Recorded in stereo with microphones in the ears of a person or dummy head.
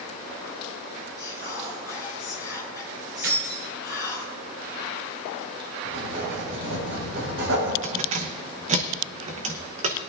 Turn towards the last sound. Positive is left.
turn(degrees=-35)  # may be behind; listen again after turning